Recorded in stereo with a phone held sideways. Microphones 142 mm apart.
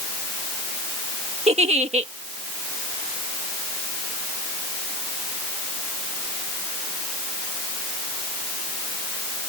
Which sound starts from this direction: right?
A giggle, at 1.5 s.